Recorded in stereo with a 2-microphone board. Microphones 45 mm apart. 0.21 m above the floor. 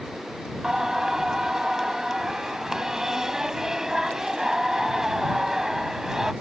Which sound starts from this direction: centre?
Singing, at 0.6 s.